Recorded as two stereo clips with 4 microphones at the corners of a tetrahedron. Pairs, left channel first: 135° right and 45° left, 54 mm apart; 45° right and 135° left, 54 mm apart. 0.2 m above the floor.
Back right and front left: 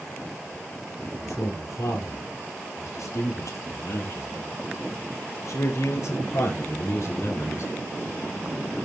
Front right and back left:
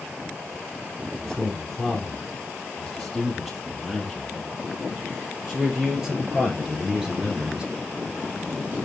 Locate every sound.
1.0 s a man speaking: 135° right, 5.5 m; by 7.7 s 150° right, 2.5 m